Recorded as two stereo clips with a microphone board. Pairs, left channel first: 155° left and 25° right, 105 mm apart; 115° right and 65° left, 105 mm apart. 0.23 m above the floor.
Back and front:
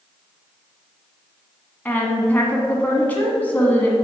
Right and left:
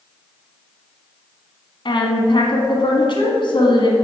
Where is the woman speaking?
130° right, 1.6 m.